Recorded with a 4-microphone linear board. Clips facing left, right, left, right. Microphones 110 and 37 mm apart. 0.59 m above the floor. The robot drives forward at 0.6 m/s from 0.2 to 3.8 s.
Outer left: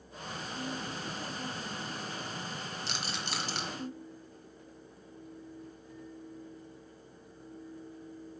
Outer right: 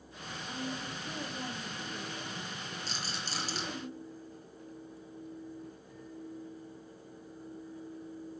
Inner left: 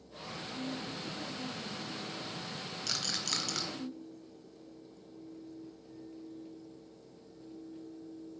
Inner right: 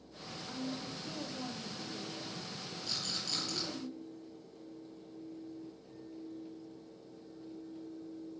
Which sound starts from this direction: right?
A woman speaking, at 0.5 s.